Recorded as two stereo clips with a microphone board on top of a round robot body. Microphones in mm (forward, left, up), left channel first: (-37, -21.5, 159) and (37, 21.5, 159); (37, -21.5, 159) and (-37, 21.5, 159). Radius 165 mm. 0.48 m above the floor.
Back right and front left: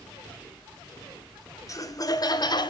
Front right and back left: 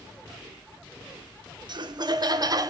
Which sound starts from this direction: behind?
Laughter, at 1.7 s.